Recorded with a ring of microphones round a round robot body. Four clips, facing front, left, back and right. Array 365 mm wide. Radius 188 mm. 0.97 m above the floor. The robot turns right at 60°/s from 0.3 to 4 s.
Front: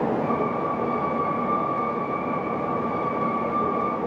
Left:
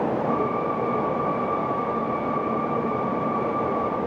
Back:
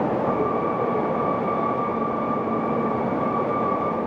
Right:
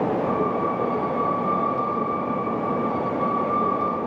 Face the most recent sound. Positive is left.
No sound to turn to.